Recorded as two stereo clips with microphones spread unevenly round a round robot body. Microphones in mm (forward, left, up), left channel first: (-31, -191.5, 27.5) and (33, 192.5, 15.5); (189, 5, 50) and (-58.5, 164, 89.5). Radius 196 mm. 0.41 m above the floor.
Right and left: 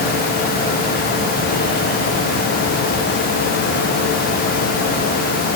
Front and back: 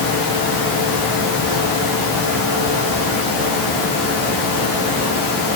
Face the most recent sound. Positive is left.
No sound to turn to.